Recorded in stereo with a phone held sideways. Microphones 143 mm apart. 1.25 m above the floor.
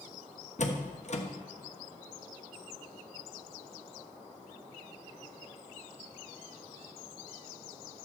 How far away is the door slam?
About 1.1 m.